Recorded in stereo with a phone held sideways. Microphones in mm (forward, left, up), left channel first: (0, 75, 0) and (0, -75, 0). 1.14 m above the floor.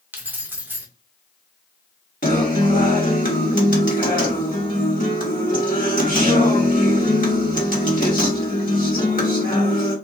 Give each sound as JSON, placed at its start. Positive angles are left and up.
{"t": 0.1, "sound": "keys jangling", "side_deg": -10, "distance_m": 0.7}
{"t": 2.2, "sound": "a guitar", "side_deg": 60, "distance_m": 1.1}